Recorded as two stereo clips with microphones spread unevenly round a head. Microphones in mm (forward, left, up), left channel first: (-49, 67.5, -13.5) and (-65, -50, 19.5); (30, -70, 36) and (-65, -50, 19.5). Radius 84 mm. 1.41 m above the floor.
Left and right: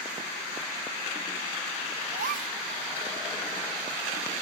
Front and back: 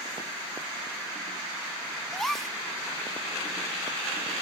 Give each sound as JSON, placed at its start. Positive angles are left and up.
{"t": 2.1, "sound": "a gasp", "azimuth_deg": -100}